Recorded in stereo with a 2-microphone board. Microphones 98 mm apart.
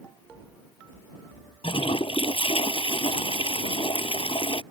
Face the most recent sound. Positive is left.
turn(degrees=80)